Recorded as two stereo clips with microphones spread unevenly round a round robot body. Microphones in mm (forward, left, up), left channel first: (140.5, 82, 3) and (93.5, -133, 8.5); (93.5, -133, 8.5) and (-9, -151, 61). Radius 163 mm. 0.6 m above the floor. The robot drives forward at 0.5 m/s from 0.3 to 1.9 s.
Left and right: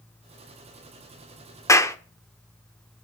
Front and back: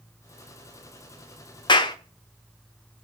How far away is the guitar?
No guitar in this recording.